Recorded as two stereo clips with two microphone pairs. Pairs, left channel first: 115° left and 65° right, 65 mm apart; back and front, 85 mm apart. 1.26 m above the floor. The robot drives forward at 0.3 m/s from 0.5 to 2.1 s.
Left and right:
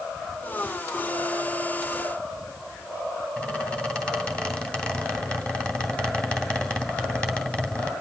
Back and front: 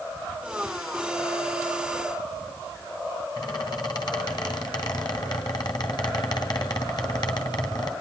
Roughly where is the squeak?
Behind.